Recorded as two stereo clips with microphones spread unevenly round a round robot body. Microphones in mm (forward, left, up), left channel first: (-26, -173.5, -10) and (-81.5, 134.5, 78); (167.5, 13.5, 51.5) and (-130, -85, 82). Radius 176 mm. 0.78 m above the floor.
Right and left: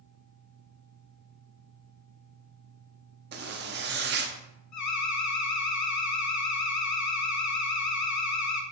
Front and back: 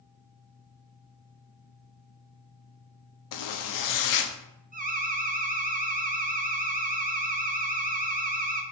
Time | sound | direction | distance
3.3 | a zipper | 35° left | 0.9 m
4.7 | an alarm | 95° right | 1.5 m